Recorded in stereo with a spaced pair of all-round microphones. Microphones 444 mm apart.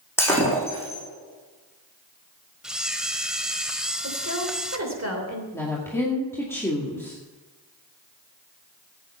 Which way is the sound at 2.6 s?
Centre (ahead or behind).